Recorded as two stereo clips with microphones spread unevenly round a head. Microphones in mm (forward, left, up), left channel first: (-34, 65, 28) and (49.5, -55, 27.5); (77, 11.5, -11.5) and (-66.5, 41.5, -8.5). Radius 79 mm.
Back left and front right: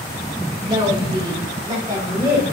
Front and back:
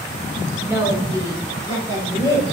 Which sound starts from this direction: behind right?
A woman speaking, at 0.6 s.